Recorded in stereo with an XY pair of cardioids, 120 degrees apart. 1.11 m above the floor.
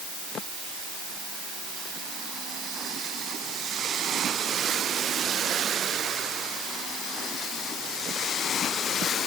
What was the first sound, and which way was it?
Only background noise.